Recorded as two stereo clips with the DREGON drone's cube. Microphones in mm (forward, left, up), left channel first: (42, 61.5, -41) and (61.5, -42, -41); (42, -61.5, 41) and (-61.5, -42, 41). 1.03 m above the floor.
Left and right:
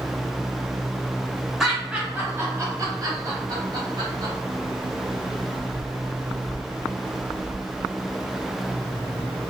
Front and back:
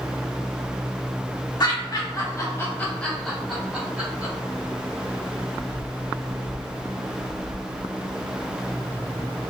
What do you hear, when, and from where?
1.6 s laughter: 5° left, 1.0 m; by 4.3 s 115° right, 1.5 m